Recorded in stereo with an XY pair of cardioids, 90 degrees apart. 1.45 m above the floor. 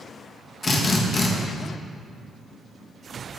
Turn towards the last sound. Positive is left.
turn(degrees=40)